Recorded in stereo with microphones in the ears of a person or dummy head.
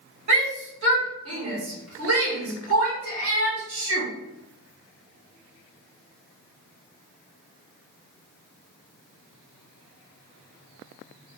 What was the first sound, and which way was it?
A shout, 70° right (ahead or behind).